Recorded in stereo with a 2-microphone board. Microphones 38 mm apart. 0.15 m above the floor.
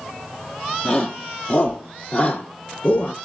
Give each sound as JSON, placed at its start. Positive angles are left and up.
{"t": 0.8, "sound": "a shout", "side_deg": 20, "distance_m": 3.5}